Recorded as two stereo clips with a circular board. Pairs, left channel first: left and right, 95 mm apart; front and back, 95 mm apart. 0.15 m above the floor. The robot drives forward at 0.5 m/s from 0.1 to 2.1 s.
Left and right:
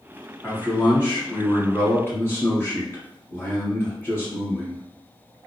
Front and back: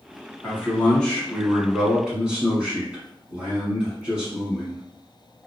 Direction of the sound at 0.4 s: 45° left.